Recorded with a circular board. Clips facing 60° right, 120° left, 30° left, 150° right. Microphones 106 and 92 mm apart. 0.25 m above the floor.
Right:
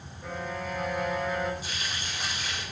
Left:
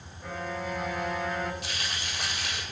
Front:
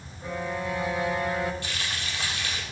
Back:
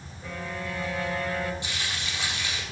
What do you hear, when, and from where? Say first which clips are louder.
0.2 s a violin: even, front 4 dB; 25° left, 1.1 m
1.6 s frying: even, even; 140° left, 4 m